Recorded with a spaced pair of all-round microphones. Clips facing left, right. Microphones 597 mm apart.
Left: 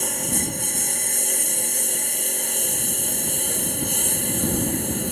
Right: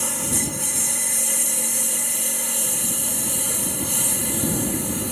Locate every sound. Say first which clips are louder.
0.0 s a lawn mower: even; 30° right (ahead or behind)